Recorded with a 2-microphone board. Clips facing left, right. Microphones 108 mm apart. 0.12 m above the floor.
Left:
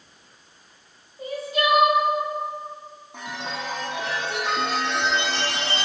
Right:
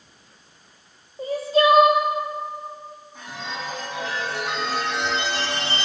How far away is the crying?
About 0.9 m.